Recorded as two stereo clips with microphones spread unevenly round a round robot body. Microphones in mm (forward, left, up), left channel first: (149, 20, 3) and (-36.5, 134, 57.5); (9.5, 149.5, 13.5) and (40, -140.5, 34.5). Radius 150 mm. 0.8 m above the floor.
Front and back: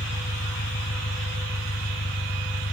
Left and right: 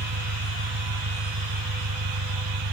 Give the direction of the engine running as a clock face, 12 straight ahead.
3 o'clock.